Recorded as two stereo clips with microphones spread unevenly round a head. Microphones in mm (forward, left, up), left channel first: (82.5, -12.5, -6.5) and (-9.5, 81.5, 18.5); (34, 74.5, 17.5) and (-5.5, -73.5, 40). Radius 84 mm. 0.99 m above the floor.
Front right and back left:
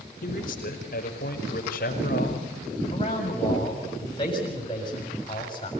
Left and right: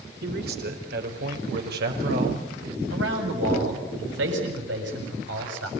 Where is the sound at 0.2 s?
80° right, 4.5 m; by 2.8 s 85° right, 6 m.